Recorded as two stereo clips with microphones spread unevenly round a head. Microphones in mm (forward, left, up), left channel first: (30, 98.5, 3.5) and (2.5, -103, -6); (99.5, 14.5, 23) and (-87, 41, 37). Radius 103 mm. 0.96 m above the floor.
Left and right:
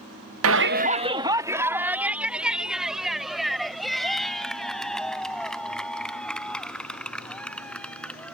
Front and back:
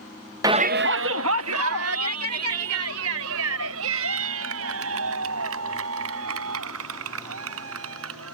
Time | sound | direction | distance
0.4 | a shout | 115° right | ?